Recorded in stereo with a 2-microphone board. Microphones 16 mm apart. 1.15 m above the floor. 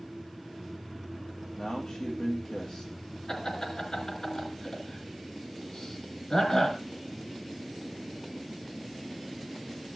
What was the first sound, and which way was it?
A man speaking, 85° left.